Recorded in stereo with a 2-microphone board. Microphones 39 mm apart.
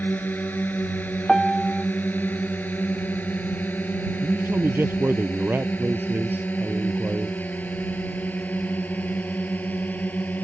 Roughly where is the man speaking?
Right.